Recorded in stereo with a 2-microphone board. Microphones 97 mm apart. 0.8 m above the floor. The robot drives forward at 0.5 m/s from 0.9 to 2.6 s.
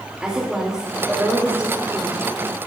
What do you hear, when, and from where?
0.2 s a woman speaking: 10° right (ahead or behind), 1.8 m; by 2.4 s 15° right (ahead or behind), 1.2 m